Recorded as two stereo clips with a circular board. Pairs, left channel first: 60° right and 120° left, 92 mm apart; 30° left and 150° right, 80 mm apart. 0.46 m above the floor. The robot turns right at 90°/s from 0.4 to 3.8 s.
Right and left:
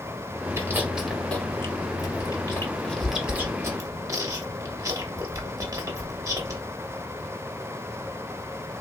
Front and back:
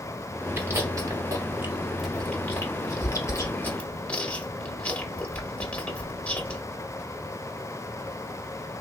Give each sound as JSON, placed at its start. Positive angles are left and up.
{"t": 0.6, "sound": "chewing", "azimuth_deg": 160, "distance_m": 0.8}